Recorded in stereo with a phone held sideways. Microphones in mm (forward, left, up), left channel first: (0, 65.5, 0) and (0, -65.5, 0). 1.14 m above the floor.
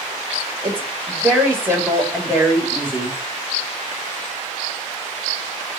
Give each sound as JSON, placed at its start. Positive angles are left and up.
{"t": 0.6, "sound": "a woman speaking", "side_deg": -20, "distance_m": 2.5}